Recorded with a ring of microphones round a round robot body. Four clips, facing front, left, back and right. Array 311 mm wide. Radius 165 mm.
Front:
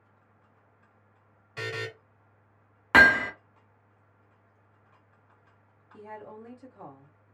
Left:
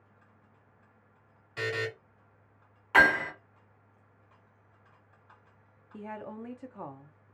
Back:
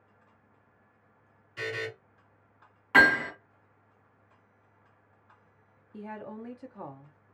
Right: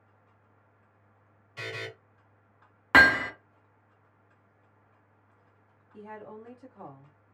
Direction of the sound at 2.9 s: 50° right.